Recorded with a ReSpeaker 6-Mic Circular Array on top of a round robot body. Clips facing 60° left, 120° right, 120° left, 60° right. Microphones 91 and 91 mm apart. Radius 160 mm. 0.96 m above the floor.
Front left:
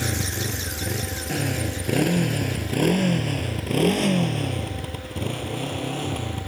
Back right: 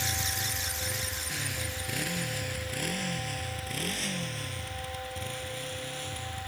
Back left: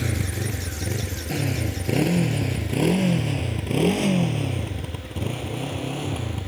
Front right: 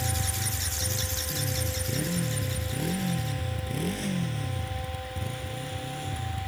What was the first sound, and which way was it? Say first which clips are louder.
A motorcycle: front left 7 dB, back left 5 dB; 100° left.